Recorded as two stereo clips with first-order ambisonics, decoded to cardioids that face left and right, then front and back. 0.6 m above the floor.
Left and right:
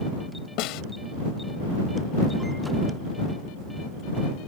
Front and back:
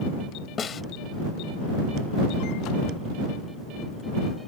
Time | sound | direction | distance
0.6 | a snare drum | 65° left | ?